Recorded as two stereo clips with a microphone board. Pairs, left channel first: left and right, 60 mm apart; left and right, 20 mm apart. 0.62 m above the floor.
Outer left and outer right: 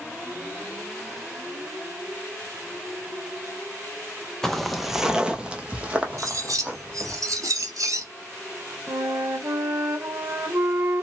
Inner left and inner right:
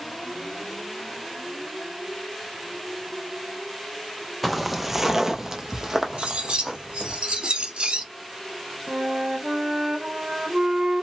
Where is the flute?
55° right (ahead or behind), 1.9 m.